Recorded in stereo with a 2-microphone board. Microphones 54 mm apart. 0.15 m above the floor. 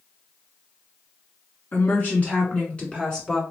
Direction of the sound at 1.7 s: 40° left (ahead or behind).